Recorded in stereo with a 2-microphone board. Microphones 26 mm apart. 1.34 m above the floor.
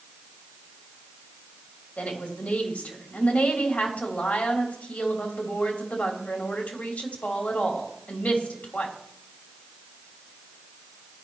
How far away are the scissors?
No scissors in this recording.